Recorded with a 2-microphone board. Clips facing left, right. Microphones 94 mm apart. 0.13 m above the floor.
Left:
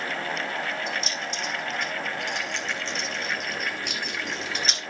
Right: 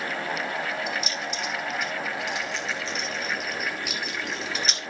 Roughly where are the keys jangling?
Centre.